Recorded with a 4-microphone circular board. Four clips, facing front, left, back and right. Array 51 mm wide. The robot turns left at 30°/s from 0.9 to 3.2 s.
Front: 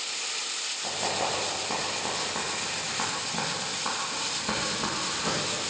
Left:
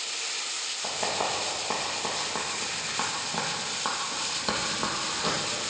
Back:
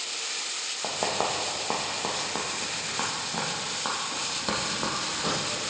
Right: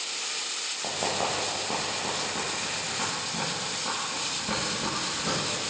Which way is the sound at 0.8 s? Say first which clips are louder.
Even, back 2 dB; 165° right.